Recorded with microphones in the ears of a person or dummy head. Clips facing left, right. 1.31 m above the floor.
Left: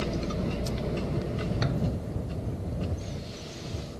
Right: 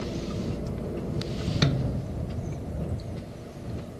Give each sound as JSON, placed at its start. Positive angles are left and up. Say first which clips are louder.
{"t": 1.6, "sound": "a snare drum", "louder": "right 2 dB", "side_deg": -45}